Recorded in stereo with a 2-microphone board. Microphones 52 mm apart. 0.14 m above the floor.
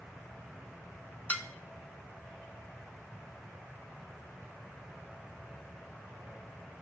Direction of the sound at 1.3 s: 30° left (ahead or behind).